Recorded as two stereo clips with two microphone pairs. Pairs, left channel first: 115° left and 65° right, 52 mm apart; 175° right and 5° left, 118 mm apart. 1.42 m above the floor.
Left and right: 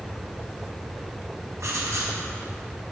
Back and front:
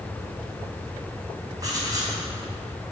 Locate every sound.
1.6 s writing: 50° right, 3.5 m